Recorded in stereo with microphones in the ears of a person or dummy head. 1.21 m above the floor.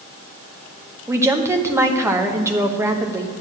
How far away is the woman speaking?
About 1.0 m.